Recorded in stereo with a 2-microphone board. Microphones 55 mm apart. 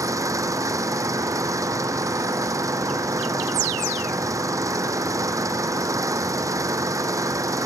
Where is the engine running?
85° right.